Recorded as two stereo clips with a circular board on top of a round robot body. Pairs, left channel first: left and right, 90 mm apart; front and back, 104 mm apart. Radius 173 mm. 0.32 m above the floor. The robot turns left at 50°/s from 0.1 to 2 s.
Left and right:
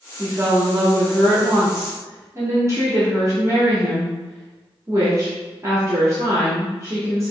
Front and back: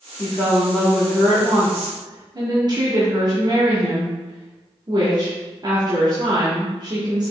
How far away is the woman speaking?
About 1.5 m.